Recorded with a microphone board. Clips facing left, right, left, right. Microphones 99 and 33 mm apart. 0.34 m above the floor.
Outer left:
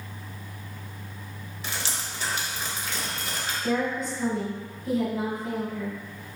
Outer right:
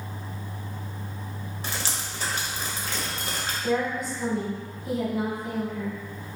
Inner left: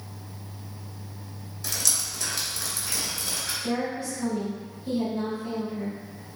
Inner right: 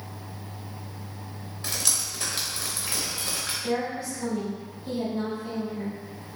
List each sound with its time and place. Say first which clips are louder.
1.6 s dripping: even, even; 35° right (ahead or behind), 0.6 m
3.6 s a woman speaking: outer right 1 dB, even; 5° right (ahead or behind), 1.1 m